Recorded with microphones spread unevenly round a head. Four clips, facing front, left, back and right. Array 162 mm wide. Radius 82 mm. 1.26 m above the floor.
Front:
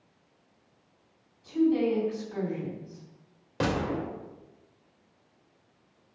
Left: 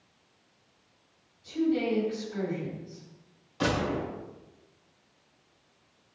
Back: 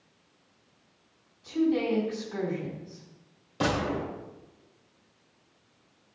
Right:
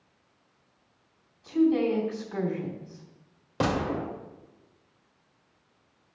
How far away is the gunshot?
About 2.5 m.